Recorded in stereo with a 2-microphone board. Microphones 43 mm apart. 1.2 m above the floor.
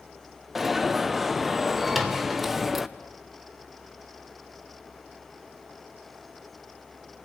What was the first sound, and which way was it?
An alarm, 5° right (ahead or behind).